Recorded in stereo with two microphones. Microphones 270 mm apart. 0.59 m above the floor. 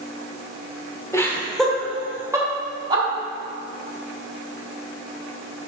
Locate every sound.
1.1 s laughter: 10° left (ahead or behind), 2 m; by 3.0 s 20° right (ahead or behind), 3 m